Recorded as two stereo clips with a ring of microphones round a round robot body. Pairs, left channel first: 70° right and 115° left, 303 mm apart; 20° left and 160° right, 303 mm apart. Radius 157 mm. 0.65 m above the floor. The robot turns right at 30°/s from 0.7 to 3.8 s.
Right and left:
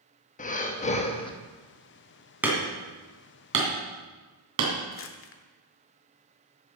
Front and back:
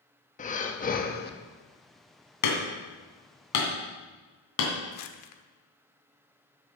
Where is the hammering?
30° left, 2.5 m; by 4.8 s 70° left, 2.5 m.